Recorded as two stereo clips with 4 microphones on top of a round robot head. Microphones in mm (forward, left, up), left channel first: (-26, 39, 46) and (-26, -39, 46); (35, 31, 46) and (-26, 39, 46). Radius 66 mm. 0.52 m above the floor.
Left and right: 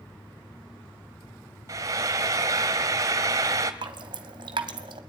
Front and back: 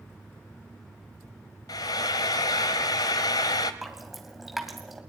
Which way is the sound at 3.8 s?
100° right.